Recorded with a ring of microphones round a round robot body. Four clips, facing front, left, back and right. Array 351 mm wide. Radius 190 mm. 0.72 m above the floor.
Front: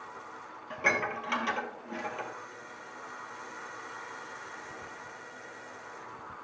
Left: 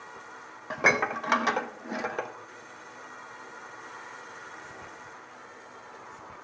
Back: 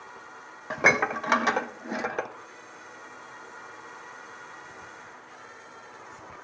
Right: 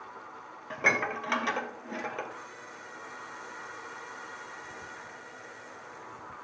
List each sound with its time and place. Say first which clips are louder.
0.7 s dishes clattering: left 4 dB, back 7 dB; 160° left, 0.5 m